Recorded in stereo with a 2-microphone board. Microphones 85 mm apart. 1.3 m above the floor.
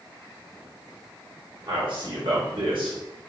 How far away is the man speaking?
About 3 m.